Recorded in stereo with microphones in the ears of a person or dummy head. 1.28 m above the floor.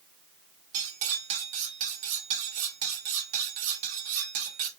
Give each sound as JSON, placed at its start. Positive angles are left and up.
{"t": 0.7, "sound": "cutlery clinking", "side_deg": -40, "distance_m": 1.1}